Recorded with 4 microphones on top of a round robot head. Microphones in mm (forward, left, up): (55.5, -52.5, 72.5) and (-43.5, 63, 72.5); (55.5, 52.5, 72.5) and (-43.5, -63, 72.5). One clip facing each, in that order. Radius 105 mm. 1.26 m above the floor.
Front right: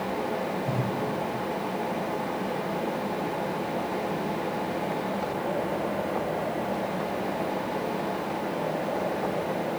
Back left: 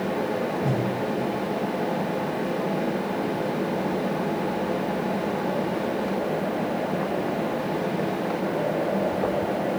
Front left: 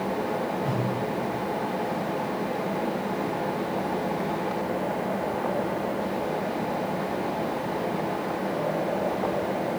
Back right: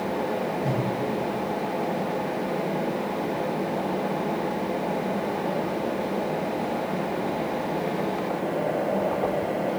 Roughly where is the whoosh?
Behind.